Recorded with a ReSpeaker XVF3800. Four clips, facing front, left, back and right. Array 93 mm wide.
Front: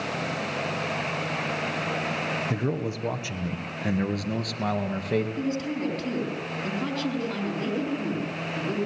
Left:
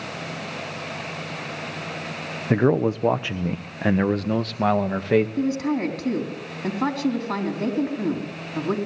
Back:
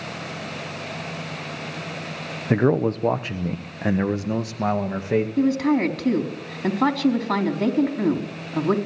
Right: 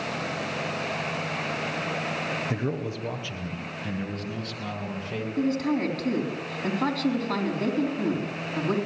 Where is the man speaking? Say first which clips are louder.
Left 10 dB, back 9 dB; 140° left, 0.9 m; by 5.3 s 110° left, 2 m.